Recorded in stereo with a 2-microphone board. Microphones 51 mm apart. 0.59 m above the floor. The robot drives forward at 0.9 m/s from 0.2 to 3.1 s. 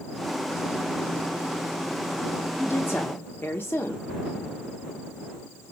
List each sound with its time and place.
2.6 s a woman speaking: 50° left (ahead or behind), 0.8 m; by 4.0 s 40° left (ahead or behind), 0.9 m